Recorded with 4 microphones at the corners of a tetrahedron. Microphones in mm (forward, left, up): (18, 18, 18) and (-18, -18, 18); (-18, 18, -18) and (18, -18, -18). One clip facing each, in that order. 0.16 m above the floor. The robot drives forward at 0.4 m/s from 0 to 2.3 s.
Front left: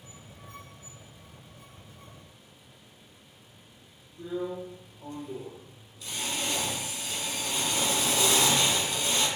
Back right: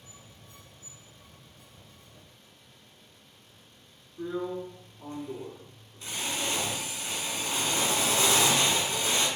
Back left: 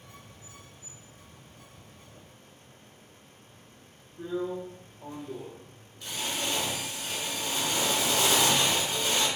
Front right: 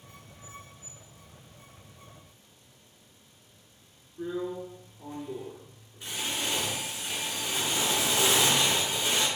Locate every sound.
4.2 s a drill: 105° right, 1.0 m